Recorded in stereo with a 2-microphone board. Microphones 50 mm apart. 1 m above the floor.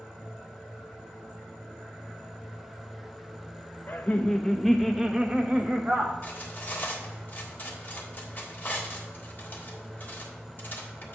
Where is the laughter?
40° left (ahead or behind), 0.8 m; by 6.1 s 25° right (ahead or behind), 1.7 m.